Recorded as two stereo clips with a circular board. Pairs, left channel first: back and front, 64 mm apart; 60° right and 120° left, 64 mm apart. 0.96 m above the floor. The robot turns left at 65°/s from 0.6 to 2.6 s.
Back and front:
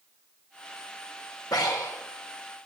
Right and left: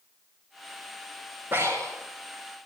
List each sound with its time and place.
1.5 s breathing: 175° left, 3.5 m; by 2.0 s 145° left, 3.5 m